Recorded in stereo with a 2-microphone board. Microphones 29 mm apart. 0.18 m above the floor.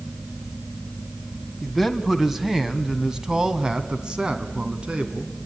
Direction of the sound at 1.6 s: Centre (ahead or behind).